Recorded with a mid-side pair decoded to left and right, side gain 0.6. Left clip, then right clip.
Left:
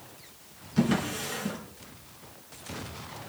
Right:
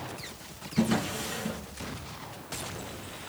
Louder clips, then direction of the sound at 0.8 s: Left 1 dB; 10° left.